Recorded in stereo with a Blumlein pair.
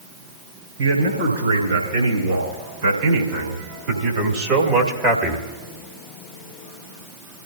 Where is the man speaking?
65° right, 5.5 m; by 5.5 s 10° right, 2.0 m.